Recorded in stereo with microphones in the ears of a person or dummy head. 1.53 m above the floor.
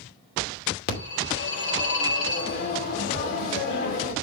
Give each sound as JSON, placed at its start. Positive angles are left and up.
{"t": 0.9, "sound": "a phone ringing", "side_deg": 50, "distance_m": 2.5}